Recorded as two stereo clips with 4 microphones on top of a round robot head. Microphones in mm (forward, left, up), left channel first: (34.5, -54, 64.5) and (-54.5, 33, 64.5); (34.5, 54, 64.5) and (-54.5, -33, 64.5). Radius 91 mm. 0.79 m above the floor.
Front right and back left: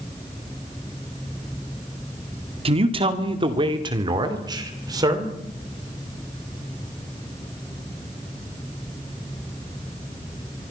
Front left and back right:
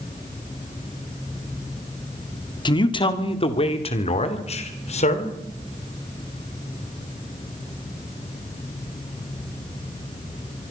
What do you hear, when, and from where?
2.6 s a man speaking: 95° left, 2 m; by 5.3 s 75° left, 3.5 m